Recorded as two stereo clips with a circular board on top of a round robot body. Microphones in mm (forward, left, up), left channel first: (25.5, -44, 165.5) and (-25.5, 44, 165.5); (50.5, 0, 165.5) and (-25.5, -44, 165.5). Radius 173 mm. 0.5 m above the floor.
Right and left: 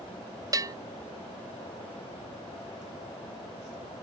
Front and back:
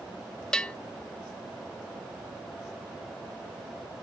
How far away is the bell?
About 0.7 m.